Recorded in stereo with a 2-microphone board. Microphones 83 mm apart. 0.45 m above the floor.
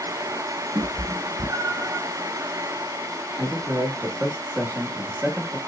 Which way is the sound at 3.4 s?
25° right (ahead or behind).